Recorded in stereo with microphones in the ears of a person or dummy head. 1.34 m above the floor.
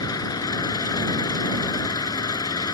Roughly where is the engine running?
Left.